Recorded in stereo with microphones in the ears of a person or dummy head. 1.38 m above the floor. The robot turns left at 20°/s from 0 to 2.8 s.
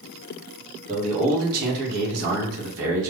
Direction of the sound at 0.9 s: 35° right.